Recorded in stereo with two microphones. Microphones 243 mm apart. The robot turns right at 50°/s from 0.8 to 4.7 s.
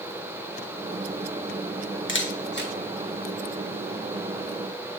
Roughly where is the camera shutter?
Left.